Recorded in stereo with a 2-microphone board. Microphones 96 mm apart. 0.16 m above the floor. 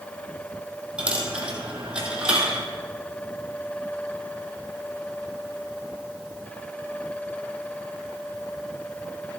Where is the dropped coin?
10° right (ahead or behind), 1.8 m.